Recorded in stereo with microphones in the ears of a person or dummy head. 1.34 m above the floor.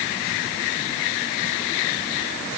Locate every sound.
Only background noise.